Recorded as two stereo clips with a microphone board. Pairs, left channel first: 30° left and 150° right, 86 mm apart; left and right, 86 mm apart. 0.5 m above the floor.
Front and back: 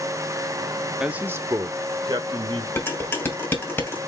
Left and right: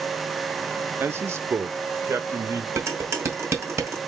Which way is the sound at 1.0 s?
80° right.